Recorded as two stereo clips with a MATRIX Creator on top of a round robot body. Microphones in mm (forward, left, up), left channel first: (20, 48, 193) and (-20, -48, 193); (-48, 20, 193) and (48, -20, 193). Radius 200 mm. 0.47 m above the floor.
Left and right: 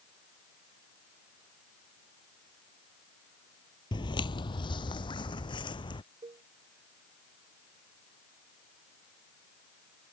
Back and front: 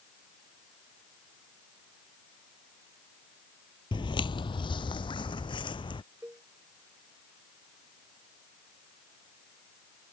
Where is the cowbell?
95° right.